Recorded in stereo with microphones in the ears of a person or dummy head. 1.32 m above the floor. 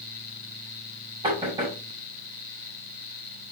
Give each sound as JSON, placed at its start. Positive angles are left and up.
{"t": 1.2, "sound": "knocking", "side_deg": -25, "distance_m": 4.5}